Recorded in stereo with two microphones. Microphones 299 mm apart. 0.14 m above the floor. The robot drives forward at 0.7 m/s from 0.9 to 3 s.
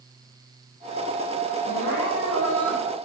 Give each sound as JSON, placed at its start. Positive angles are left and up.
{"t": 1.7, "sound": "crying", "side_deg": 75, "distance_m": 1.7}